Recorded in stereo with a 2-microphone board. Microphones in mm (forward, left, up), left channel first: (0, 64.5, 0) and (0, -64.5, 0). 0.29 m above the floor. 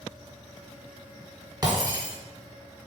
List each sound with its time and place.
1.6 s breaking glass: 30° right (ahead or behind), 1.4 m